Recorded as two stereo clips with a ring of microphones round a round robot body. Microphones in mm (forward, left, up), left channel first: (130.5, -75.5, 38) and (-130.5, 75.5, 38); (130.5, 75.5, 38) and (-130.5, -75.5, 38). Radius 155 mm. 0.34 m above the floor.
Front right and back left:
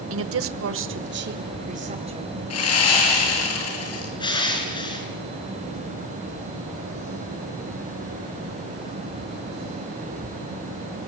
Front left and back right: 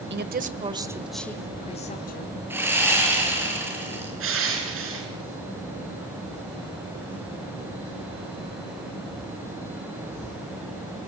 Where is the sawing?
70° right, 8 m.